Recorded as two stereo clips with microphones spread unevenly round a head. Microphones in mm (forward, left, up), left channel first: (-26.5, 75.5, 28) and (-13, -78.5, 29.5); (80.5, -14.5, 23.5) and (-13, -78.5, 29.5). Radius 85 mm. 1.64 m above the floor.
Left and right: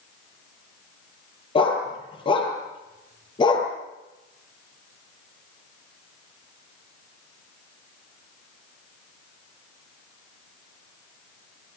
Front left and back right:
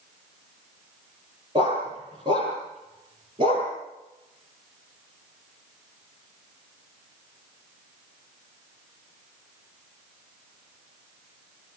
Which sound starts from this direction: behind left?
A dog barking, at 1.6 s.